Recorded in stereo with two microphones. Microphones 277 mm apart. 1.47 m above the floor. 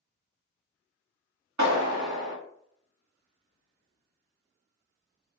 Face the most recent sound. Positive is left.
turn(degrees=-80)